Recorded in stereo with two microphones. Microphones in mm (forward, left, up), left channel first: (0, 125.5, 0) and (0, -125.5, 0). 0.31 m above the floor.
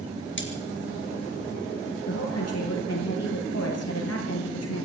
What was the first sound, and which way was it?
Cutlery clinking, 50° left (ahead or behind).